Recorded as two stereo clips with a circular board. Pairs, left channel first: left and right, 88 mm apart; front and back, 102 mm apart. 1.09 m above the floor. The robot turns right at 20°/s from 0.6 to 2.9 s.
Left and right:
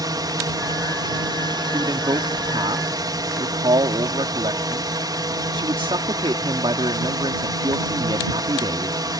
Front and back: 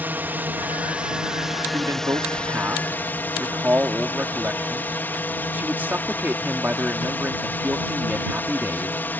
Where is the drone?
115° right; by 9.2 s 65° right.